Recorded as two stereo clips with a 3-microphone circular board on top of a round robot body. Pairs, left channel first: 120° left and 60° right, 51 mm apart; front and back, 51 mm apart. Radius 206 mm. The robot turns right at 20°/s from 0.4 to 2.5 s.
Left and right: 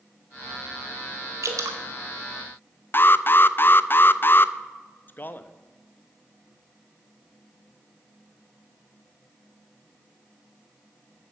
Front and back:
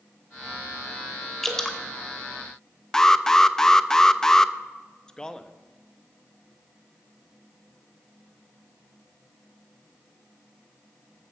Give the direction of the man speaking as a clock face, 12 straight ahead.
10 o'clock.